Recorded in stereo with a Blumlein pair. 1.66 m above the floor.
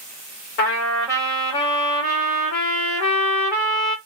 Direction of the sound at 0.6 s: 45° left.